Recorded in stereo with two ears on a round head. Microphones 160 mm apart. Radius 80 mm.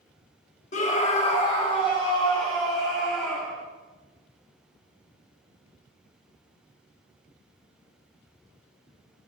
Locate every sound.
0.7 s a scream: 40° left (ahead or behind), 1.0 m; by 3.6 s 25° left (ahead or behind), 4 m